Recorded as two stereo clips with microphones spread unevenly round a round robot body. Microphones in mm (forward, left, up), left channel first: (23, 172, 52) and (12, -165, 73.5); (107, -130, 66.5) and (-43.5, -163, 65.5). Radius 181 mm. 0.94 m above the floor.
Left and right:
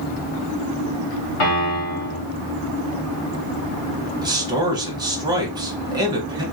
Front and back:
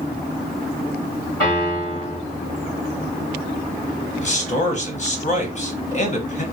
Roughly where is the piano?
Ahead left.